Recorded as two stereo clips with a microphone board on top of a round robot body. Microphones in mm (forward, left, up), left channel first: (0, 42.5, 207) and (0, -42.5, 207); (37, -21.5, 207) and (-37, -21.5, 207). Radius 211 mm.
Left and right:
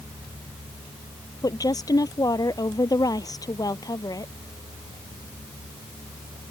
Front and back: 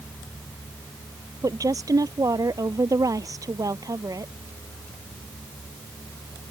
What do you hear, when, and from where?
1.4 s a woman speaking: 135° left